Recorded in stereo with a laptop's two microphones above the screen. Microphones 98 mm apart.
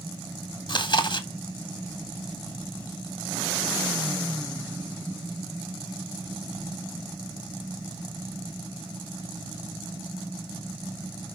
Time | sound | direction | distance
0.7 | chewing | 55° left (ahead or behind) | 1.6 m